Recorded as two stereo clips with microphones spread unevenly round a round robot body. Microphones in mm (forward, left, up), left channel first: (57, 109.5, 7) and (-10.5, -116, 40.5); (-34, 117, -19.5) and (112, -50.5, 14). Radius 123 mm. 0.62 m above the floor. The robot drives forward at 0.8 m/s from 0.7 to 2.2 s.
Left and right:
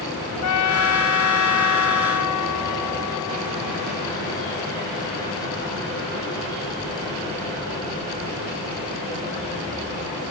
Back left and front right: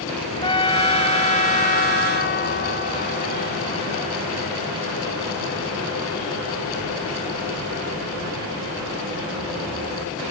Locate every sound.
0.4 s a trumpet: 60° left; by 4.1 s 85° left